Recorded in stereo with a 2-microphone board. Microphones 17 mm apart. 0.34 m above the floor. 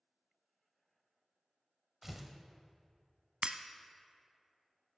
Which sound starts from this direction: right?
Breaking glass, at 3.4 s.